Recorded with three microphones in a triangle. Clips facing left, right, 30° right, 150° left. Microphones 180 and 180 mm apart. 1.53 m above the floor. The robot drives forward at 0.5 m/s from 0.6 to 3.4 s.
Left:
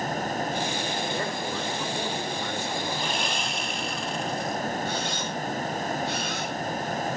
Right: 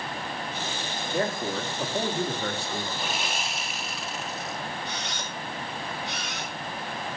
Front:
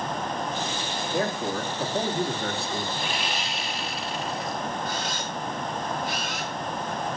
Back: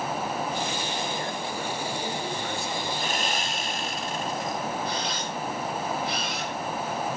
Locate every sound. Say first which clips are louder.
1.1 s a man speaking: right 2 dB, front 5 dB; 50° right, 3.5 m; by 2.9 s 65° right, 3 m
3.0 s sawing: left 2 dB, back 1 dB; 175° right, 1.3 m
4.8 s a camera shutter: left 6 dB, even; 75° right, 6.5 m